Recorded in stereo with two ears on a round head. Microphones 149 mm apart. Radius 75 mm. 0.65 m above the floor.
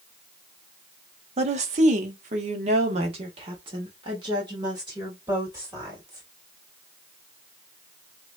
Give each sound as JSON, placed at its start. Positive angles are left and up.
{"t": 1.4, "sound": "a woman speaking", "side_deg": -45, "distance_m": 0.9}